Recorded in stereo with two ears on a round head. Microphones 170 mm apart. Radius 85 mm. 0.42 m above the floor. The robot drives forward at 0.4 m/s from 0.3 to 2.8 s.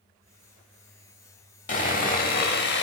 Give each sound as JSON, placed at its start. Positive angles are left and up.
{"t": 1.7, "sound": "sawing", "side_deg": 40, "distance_m": 1.0}